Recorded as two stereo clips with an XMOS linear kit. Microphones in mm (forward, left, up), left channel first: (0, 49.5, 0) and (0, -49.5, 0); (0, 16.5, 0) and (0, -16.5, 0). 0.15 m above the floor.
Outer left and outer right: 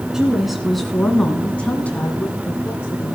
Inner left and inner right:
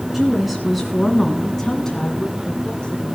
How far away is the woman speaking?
About 1.9 m.